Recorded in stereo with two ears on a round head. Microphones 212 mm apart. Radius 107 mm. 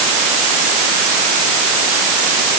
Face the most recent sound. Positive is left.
No sound to turn to.